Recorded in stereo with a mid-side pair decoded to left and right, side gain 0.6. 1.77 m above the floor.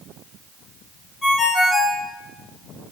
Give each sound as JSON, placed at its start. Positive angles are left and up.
{"t": 1.2, "sound": "a ringtone", "azimuth_deg": 25, "distance_m": 3.0}